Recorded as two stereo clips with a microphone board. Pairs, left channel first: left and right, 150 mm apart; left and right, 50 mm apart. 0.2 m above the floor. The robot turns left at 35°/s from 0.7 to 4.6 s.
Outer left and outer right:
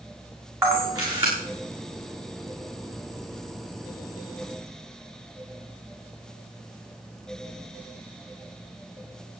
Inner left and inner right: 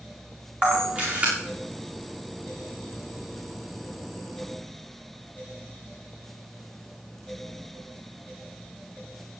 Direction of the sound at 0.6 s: 15° right (ahead or behind).